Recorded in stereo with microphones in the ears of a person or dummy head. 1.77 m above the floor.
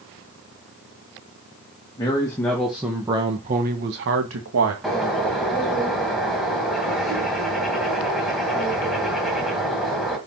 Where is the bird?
Centre (ahead or behind), 2 m.